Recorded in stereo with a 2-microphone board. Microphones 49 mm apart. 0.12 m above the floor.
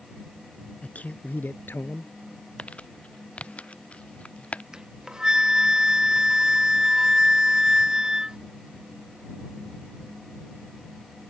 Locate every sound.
0.8 s a man speaking: 25° left (ahead or behind); by 2.1 s 50° left (ahead or behind)
2.6 s crumpling: 25° left (ahead or behind)
4.7 s a flute: 15° right (ahead or behind)